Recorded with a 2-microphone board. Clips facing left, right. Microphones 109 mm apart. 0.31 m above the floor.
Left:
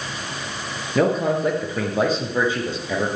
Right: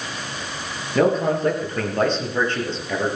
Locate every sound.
0.9 s a man speaking: centre (ahead or behind), 6 m; by 3.2 s 10° left (ahead or behind), 7 m